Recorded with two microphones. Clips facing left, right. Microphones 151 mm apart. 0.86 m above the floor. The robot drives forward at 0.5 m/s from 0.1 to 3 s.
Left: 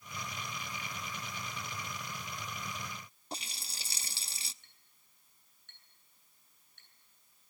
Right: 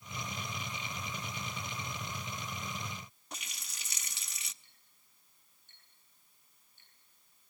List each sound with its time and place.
3.3 s a running tap: 30° left (ahead or behind), 0.7 m
4.6 s a clink: 75° left (ahead or behind), 8.5 m